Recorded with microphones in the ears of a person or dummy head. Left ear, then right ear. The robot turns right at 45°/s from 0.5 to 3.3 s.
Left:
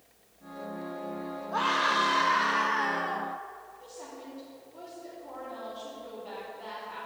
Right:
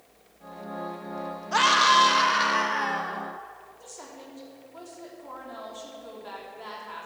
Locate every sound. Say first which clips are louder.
1.5 s a scream: right 7 dB; 70° right, 1.4 m; by 3.3 s 10° left, 1.4 m
3.8 s a woman speaking: right 1 dB; 60° right (ahead or behind), 3 m